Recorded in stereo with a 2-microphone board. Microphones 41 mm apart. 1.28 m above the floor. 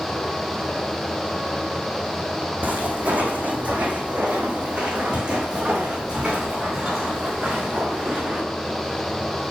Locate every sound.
2.6 s footsteps: 45° right (ahead or behind), 2.5 m; by 8.4 s 10° right (ahead or behind), 4.5 m